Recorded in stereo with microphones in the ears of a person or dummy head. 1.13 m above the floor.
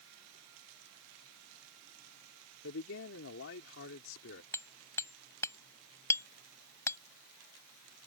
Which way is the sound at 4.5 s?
15° left (ahead or behind).